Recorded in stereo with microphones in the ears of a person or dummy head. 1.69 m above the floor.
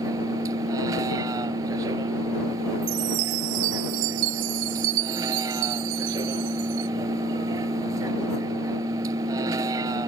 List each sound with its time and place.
0.0 s a vehicle: 20° right (ahead or behind)
2.8 s a chime: 70° right (ahead or behind)